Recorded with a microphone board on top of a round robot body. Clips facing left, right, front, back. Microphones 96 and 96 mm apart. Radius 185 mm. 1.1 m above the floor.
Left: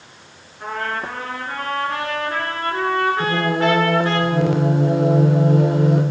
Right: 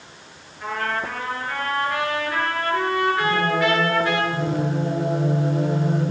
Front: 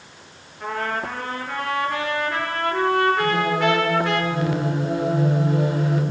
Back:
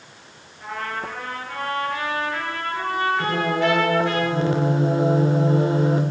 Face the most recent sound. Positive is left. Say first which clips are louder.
# left 1 dB, front 1 dB
turn(degrees=120)